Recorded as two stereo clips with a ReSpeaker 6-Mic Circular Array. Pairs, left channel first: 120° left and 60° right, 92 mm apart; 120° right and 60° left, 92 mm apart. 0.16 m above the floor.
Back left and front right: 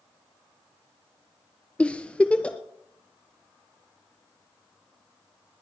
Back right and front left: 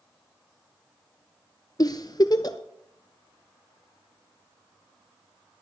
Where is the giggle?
165° right, 0.8 m.